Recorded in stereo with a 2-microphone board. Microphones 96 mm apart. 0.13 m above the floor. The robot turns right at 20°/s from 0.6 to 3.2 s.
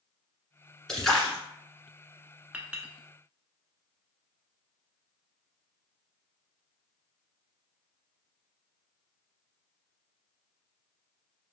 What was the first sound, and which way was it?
A splash, 5° left (ahead or behind).